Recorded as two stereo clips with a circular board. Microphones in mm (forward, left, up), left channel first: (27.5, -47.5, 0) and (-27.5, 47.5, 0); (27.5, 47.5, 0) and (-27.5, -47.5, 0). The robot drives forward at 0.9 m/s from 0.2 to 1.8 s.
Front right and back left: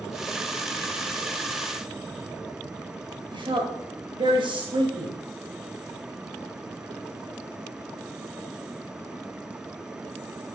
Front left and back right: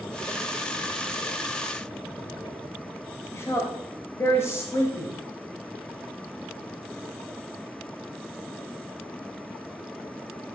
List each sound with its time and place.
3.3 s a woman speaking: 115° left, 2 m